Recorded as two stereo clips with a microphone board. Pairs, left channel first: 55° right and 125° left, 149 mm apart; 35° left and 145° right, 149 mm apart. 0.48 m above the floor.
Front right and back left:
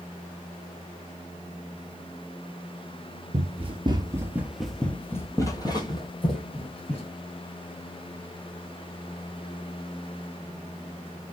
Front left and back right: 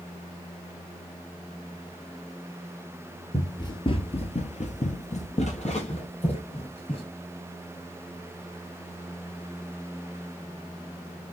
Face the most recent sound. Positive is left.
turn(degrees=-10)